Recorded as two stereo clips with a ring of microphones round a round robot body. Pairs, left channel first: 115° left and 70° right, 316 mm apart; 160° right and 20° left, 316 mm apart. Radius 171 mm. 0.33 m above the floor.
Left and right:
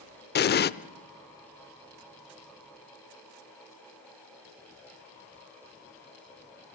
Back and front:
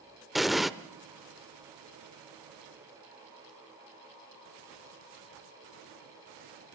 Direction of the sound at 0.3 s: 110° left.